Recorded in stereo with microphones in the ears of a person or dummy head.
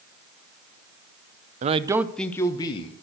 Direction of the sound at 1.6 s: 40° right (ahead or behind).